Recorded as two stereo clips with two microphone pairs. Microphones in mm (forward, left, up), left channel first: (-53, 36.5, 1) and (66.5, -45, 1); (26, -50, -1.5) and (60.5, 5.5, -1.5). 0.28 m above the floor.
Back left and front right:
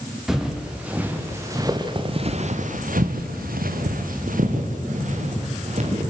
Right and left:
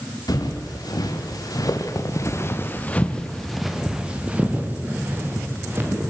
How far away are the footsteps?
About 4.5 m.